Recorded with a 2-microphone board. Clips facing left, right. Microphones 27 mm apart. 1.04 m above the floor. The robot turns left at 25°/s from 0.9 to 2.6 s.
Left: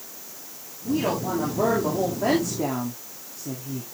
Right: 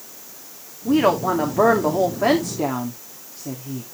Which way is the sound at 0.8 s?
115° right.